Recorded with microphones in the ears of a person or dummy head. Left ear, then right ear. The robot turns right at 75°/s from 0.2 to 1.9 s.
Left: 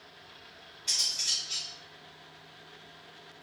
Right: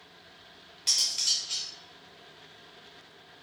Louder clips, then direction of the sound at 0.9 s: Right 2 dB; 30° right (ahead or behind).